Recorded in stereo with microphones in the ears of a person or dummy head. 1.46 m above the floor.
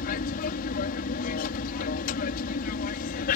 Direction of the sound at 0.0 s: 50° left (ahead or behind).